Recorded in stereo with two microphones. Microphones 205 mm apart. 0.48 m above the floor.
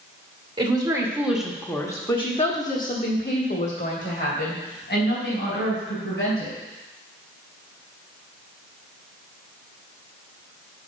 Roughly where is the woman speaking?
Right.